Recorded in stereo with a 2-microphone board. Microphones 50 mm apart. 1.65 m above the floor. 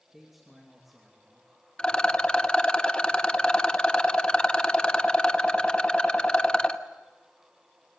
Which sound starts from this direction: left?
A rattle, at 1.8 s.